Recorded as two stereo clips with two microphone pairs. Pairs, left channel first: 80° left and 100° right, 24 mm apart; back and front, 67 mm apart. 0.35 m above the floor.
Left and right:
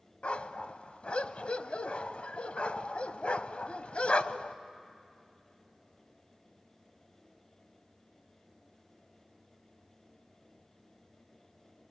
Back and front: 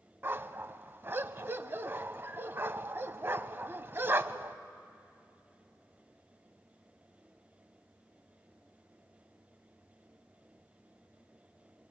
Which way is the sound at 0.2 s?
55° left.